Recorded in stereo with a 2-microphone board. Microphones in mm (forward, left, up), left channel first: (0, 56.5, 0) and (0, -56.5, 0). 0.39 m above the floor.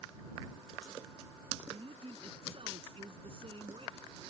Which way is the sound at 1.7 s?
55° right (ahead or behind).